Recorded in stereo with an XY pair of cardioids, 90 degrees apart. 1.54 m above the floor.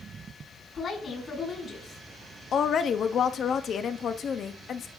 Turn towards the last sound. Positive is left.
turn(degrees=60)